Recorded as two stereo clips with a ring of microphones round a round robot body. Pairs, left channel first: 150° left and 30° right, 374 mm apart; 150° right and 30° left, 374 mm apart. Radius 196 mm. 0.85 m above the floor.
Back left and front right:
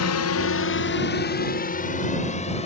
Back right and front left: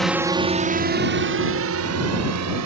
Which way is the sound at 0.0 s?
120° left.